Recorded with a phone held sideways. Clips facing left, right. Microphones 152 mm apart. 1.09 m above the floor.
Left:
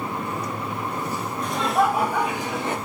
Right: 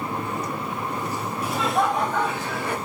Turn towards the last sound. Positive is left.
turn(degrees=20)  # may be behind; listen again after turning